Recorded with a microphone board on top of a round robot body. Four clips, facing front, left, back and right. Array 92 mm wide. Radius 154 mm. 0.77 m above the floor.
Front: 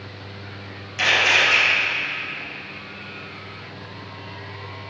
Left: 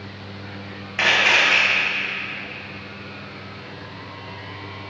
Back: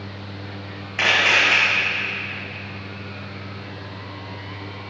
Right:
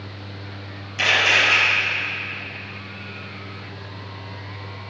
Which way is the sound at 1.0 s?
135° left.